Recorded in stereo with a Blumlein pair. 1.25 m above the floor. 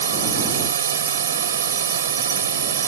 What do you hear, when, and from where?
0.0 s a drone: 65° right